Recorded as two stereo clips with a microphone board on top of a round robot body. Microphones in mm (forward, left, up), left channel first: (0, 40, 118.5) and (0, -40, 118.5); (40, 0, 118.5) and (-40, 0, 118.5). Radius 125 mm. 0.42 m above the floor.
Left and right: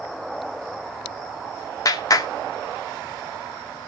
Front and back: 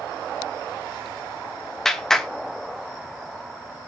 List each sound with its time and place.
1.9 s a clap: 85° left, 1.5 m